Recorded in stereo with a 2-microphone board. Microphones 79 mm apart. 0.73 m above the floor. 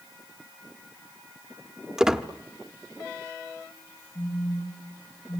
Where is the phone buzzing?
50° left (ahead or behind), 9 m.